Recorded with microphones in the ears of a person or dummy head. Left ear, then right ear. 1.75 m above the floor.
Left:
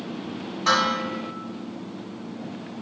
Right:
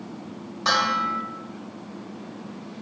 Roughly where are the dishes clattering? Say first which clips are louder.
Even; right.